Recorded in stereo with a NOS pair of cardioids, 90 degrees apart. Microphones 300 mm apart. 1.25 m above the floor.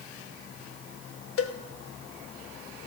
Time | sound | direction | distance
1.4 | a cowbell | 50° left | 1.1 m